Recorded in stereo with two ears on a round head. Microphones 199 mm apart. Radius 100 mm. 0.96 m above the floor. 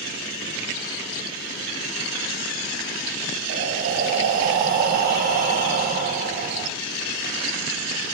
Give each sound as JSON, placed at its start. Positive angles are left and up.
{"t": 3.5, "sound": "breathing", "side_deg": -40, "distance_m": 0.8}